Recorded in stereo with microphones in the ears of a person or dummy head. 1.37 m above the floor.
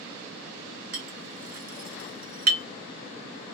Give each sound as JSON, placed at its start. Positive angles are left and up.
{"t": 0.9, "sound": "a clink", "side_deg": -50, "distance_m": 0.7}